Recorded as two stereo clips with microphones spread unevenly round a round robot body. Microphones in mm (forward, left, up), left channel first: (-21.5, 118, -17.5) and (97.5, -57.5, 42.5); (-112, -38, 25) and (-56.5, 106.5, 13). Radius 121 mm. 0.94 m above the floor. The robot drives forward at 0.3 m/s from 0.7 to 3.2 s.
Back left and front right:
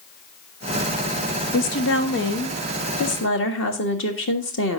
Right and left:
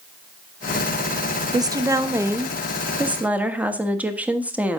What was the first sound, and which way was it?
A woman speaking, 130° left.